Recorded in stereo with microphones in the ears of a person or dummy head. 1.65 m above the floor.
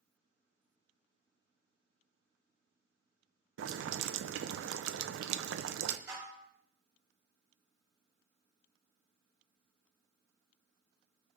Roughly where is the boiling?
Right.